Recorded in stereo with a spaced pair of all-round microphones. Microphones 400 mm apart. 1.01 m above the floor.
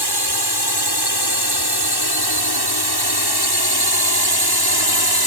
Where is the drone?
65° left (ahead or behind); by 5.3 s 60° left (ahead or behind).